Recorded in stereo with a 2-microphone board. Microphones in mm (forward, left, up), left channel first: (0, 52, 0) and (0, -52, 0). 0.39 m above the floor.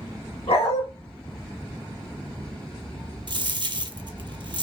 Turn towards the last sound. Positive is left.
turn(degrees=-50)  # may be behind; listen again after turning